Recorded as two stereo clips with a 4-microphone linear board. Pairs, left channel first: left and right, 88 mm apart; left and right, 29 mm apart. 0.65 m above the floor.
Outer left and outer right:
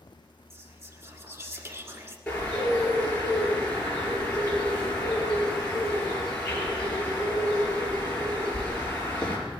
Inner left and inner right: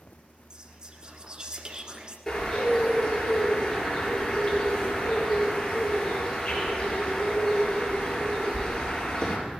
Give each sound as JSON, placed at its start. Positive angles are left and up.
{"t": 0.5, "sound": "whispering", "side_deg": -30, "distance_m": 1.4}
{"t": 2.3, "sound": "a bird", "side_deg": 10, "distance_m": 4.5}